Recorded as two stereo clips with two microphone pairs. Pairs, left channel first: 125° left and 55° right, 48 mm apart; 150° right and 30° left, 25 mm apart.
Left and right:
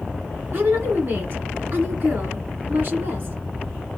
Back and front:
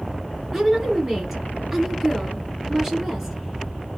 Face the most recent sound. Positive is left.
turn(degrees=-45)